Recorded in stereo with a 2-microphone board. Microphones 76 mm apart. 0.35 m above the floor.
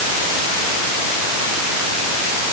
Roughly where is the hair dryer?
No hair dryer in this recording.